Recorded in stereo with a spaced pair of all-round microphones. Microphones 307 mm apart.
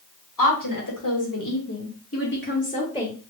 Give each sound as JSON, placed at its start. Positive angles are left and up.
{"t": 0.4, "sound": "a woman speaking", "side_deg": 80, "distance_m": 1.8}